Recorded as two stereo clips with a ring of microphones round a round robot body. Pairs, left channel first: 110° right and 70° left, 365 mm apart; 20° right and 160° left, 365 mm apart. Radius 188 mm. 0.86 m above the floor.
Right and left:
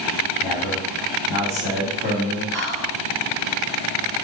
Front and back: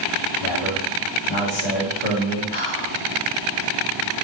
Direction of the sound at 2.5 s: 15° right.